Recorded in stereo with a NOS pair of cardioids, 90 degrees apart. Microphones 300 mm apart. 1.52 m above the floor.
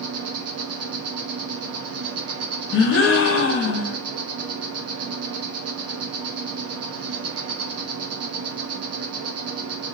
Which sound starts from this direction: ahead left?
A gasp, at 2.7 s.